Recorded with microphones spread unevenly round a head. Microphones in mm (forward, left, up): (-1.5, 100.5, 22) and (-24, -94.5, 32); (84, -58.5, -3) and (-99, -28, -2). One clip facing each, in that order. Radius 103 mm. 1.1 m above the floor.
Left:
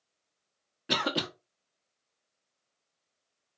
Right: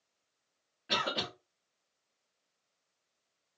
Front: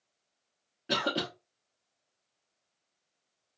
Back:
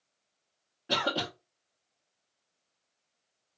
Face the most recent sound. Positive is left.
turn(degrees=60)